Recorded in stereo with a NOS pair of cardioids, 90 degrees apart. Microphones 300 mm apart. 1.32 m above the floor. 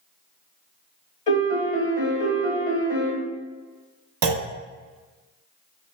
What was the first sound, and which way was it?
A piano, 25° left.